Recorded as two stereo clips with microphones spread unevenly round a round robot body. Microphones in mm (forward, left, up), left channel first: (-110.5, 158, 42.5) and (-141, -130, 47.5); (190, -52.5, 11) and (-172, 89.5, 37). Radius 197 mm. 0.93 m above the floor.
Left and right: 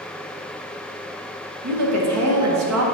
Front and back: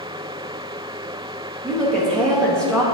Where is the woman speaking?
105° right, 1.3 m.